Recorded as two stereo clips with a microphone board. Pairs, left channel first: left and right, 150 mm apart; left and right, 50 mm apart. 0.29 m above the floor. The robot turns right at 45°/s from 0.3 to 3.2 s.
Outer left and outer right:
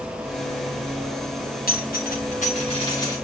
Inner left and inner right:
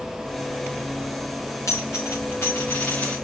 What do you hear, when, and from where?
1.7 s a dropped coin: 90° left, 4 m; by 3.1 s 25° left (ahead or behind), 4 m